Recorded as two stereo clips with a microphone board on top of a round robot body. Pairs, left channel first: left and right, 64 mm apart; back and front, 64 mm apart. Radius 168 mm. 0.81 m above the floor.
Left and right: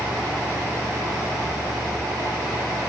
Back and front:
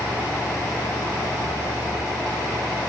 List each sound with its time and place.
Only background noise.